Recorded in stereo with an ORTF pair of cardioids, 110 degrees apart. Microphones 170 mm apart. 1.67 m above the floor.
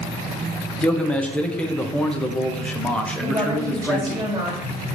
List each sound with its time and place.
0.8 s a man speaking: 5° left, 0.6 m
3.2 s a woman speaking: 20° right, 1.8 m